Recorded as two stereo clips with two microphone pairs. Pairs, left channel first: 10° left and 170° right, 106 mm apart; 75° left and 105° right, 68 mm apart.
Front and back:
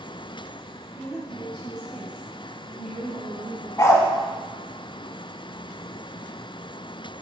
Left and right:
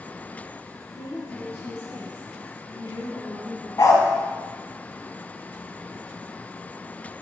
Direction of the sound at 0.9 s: 40° right.